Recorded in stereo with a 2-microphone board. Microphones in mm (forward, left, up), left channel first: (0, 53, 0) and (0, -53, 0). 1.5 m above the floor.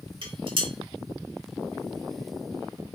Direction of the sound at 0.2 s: 50° right (ahead or behind).